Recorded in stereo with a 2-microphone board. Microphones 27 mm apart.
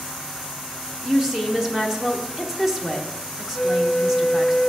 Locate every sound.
1.0 s a woman speaking: 15° right (ahead or behind), 0.9 m
3.5 s a flute: 15° left (ahead or behind), 0.6 m